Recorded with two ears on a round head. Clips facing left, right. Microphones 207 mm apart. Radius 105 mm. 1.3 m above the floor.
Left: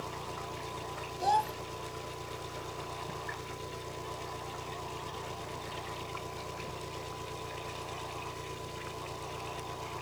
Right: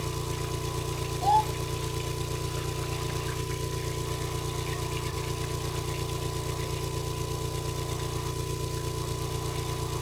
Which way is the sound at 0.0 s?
50° right (ahead or behind).